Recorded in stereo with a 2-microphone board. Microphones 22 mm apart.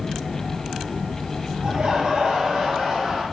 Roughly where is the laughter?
Right.